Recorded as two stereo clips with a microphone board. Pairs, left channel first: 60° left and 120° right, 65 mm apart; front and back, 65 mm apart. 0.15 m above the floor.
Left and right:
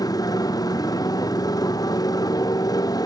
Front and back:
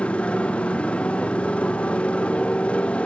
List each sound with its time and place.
0.0 s a motorcycle: 70° left